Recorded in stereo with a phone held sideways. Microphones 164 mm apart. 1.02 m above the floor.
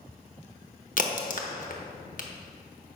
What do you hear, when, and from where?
1.0 s a crack: 55° left (ahead or behind), 0.9 m